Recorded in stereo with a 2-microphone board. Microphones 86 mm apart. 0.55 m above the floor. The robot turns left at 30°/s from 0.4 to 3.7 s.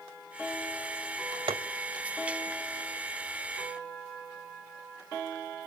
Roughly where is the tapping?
Right.